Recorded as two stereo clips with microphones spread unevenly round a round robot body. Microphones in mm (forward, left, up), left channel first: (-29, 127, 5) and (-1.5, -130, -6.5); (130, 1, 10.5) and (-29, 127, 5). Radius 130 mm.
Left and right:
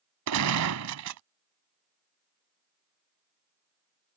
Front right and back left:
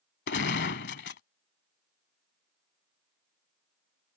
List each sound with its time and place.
0.3 s a gunshot: 70° right